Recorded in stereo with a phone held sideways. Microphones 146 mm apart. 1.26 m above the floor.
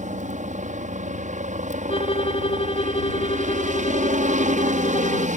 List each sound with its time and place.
0.0 s a helicopter: 60° right (ahead or behind)
1.9 s a violin: 40° left (ahead or behind)